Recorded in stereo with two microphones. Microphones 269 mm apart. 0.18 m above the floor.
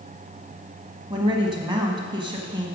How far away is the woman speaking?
About 1.1 m.